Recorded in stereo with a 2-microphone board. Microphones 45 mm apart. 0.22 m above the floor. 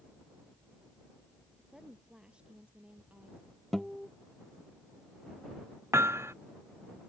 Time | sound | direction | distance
1.6 | a woman speaking | 15° right (ahead or behind) | ?
3.7 | a guitar | 5° left (ahead or behind) | ?
5.9 | hammering | 80° right | ?